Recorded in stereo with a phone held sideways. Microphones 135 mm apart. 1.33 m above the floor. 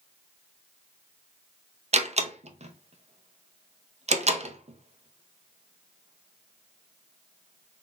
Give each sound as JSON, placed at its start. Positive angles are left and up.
{"t": 1.9, "sound": "a door slam", "side_deg": -55, "distance_m": 0.7}